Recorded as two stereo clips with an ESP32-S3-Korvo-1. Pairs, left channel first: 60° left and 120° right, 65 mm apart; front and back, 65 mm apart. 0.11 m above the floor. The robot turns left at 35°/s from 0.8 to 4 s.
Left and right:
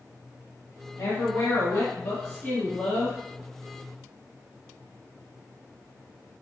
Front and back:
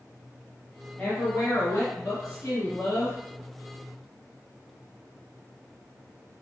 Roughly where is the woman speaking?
Ahead left.